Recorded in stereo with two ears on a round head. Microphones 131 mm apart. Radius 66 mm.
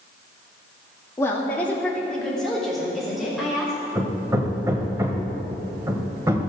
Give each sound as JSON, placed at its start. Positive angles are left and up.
{"t": 1.2, "sound": "a woman speaking", "side_deg": 20, "distance_m": 2.0}
{"t": 4.0, "sound": "hammering", "side_deg": -20, "distance_m": 1.5}